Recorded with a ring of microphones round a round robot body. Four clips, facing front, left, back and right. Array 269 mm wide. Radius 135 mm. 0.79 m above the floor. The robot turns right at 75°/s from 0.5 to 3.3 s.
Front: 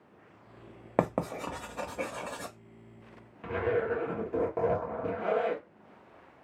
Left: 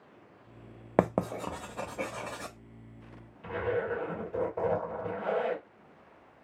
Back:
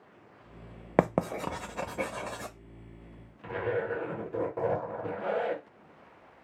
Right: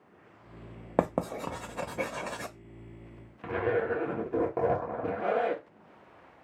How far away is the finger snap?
I don't hear a finger snap.